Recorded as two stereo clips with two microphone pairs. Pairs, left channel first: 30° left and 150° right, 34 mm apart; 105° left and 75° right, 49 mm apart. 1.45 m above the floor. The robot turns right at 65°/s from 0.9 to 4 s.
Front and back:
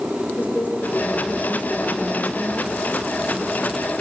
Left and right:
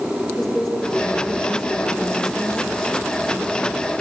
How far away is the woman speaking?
About 4 m.